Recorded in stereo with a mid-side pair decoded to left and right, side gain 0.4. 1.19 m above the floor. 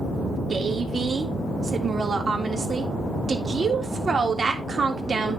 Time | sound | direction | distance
0.5 | a woman speaking | 35° right | 3 m